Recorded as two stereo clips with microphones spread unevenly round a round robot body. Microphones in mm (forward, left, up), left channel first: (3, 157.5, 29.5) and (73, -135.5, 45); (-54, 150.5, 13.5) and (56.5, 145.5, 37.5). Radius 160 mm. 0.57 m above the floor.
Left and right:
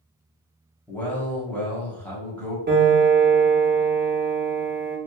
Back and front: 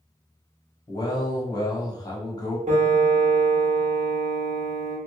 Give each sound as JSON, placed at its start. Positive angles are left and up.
{"t": 0.9, "sound": "a man speaking", "azimuth_deg": -175, "distance_m": 1.1}
{"t": 2.7, "sound": "a piano", "azimuth_deg": -20, "distance_m": 0.9}